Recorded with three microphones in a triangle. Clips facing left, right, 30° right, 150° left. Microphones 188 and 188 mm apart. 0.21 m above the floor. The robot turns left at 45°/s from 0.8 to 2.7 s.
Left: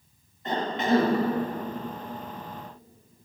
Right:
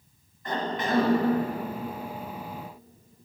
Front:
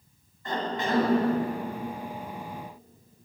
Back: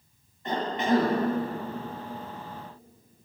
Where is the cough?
115° left, 1.3 m; by 1.1 s 100° left, 1.3 m.